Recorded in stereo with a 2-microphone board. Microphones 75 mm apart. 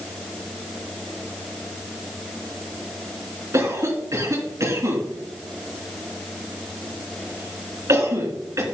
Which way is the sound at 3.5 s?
40° right (ahead or behind).